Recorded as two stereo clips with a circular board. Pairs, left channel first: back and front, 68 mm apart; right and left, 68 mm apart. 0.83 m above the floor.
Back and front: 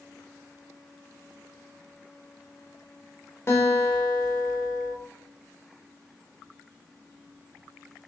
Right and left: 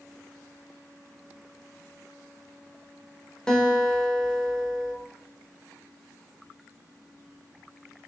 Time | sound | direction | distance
3.5 | a guitar | 165° right | 0.9 m